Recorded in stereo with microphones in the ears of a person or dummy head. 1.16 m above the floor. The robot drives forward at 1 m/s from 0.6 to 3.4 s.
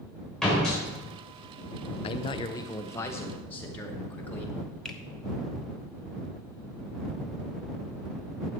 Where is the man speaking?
35° left (ahead or behind), 0.5 m; by 4.5 s 10° left (ahead or behind), 1.5 m.